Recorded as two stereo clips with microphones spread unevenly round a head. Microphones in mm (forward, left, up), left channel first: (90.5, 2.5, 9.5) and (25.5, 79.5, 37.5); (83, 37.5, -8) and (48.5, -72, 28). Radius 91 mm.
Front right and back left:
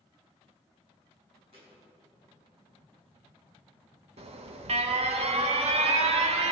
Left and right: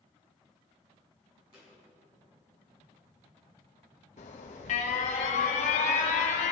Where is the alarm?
110° left, 1.1 m.